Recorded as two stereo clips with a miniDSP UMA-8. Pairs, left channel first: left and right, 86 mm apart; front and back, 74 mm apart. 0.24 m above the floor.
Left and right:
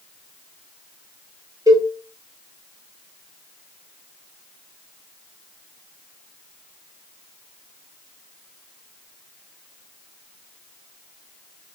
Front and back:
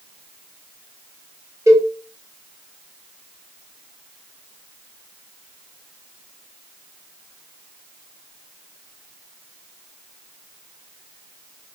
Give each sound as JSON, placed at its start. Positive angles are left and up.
{"t": 1.7, "sound": "a cowbell", "azimuth_deg": -135, "distance_m": 0.9}